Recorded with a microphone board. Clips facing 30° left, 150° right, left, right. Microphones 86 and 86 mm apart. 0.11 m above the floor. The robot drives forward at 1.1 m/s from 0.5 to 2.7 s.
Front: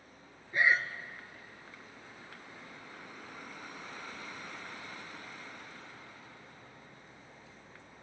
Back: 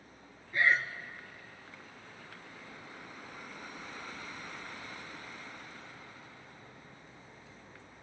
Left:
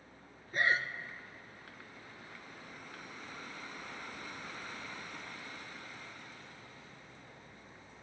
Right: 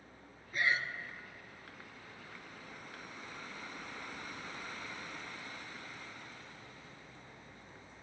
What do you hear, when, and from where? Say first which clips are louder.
0.5 s breathing: even, left 2 dB; 85° left, 0.6 m; by 0.9 s 130° left, 0.7 m